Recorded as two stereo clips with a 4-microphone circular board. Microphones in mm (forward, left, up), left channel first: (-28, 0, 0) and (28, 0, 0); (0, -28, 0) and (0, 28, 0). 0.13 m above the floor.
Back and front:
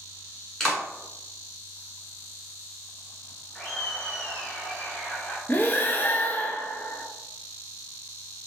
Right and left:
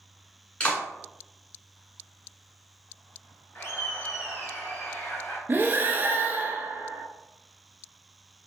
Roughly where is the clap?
Right.